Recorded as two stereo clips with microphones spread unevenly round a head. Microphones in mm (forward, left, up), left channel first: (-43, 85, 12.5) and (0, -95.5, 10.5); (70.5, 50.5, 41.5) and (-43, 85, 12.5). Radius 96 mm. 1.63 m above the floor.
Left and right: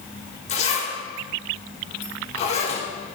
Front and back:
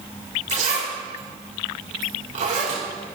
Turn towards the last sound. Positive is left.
turn(degrees=155)